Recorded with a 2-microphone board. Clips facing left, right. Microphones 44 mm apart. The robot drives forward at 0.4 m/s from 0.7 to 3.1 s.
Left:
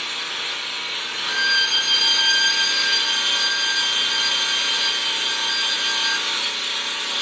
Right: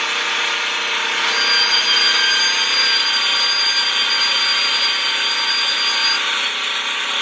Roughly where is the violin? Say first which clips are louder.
Left 1 dB; left.